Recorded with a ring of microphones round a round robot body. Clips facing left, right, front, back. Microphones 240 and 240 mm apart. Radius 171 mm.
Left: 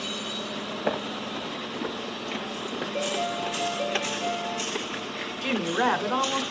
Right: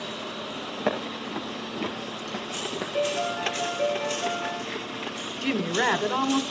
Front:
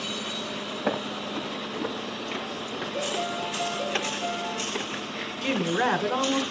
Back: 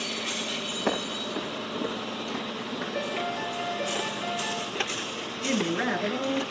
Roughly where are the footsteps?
Right.